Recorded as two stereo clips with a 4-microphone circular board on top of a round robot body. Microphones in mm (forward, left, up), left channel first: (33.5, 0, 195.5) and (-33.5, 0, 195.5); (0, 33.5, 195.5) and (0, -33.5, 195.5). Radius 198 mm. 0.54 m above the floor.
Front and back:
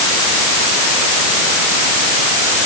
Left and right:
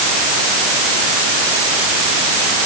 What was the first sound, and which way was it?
Only background noise.